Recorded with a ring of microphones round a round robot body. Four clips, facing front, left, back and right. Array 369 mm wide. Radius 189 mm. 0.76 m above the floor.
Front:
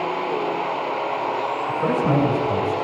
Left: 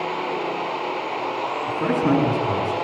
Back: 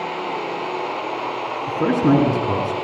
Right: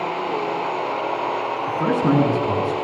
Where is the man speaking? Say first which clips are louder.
Right 1 dB, back 5 dB; 165° right, 10 m.